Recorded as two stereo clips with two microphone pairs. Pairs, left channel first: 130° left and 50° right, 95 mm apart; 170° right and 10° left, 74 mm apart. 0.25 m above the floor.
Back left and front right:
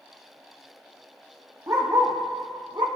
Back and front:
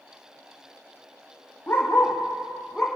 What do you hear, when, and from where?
1.7 s a dog barking: 110° right, 3 m; by 2.9 s 85° right, 3.5 m